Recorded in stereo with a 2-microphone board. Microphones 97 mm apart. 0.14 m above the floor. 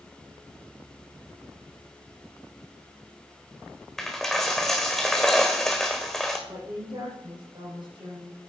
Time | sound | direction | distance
4.0 | a dropped coin | 5° left (ahead or behind) | 1.4 m
6.5 | a woman speaking | 55° right (ahead or behind) | 5.5 m